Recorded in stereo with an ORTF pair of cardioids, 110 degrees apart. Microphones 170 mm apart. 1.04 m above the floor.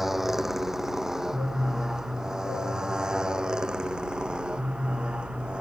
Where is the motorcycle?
Straight ahead; by 5.6 s 5° right.